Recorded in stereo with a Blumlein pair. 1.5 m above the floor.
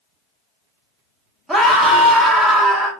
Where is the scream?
5° right, 1.9 m.